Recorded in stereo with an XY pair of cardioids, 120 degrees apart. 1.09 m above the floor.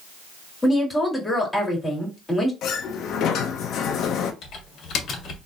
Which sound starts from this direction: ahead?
A woman speaking, at 0.6 s.